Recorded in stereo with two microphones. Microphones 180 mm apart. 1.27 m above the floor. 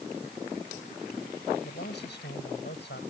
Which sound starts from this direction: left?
A man speaking, at 1.6 s.